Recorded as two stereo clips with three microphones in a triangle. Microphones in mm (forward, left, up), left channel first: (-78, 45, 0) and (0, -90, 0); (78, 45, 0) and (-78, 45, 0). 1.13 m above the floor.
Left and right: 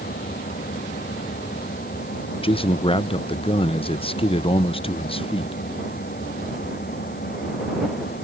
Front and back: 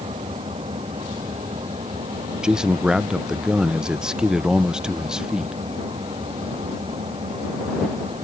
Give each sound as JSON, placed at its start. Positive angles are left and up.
{"t": 0.0, "sound": "an engine running", "azimuth_deg": 130}
{"t": 2.4, "sound": "a man speaking", "azimuth_deg": 100}